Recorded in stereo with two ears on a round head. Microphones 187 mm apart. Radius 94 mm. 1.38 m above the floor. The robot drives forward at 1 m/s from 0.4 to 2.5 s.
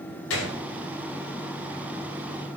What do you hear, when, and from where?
0.3 s a gunshot: 75° left (ahead or behind), 3 m